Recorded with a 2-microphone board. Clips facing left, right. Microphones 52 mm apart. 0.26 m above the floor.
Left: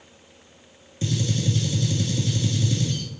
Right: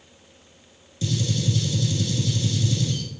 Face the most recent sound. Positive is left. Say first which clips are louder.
# even
turn(degrees=30)  # may be behind; listen again after turning